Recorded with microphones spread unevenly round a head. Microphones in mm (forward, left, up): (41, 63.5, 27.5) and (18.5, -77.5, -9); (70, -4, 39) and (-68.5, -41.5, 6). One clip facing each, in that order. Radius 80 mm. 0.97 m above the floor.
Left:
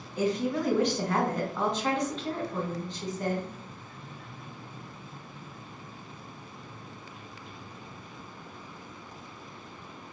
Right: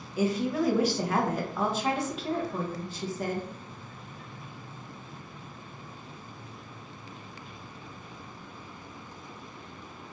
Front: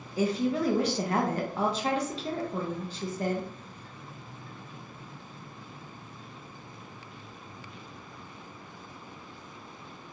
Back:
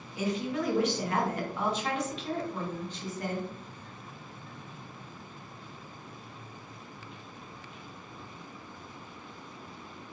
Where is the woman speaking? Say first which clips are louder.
Right 1 dB, front 4 dB; 40° right, 0.5 m.